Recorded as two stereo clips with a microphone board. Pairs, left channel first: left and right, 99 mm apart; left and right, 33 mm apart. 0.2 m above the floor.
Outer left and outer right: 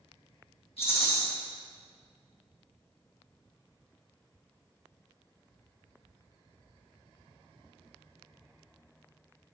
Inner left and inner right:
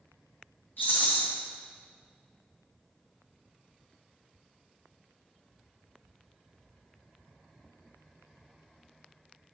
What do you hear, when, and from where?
0.8 s a rattle: 70° left (ahead or behind), 3 m